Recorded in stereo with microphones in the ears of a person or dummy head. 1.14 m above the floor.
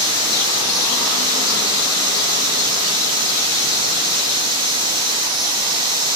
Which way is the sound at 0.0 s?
30° right (ahead or behind).